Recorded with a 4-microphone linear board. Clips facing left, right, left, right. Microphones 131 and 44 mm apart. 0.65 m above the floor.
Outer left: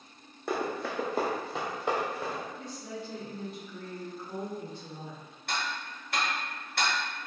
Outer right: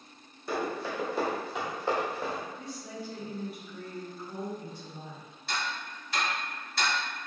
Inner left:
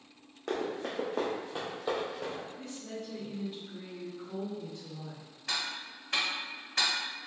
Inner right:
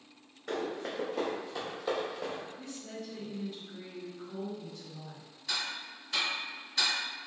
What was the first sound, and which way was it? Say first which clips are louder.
Running footsteps: even, inner left 1 dB; 65° left (ahead or behind).